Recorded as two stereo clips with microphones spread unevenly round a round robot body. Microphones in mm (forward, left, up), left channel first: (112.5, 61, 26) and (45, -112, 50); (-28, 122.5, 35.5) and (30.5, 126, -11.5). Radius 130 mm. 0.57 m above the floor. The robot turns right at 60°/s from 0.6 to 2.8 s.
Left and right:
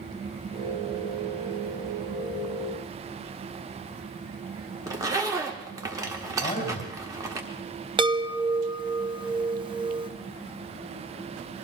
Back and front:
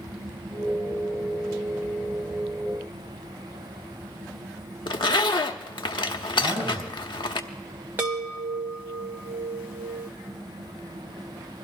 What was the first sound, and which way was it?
A zipper, 170° left.